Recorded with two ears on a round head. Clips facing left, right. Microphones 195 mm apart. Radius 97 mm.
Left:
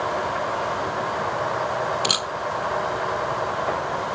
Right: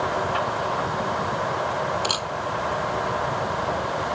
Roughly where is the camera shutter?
Left.